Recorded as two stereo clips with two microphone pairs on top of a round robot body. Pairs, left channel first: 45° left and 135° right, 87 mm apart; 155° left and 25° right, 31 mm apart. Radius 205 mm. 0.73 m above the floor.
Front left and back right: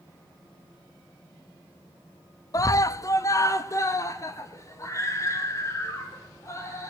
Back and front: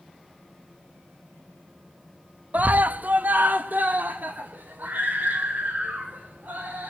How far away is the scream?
About 0.7 m.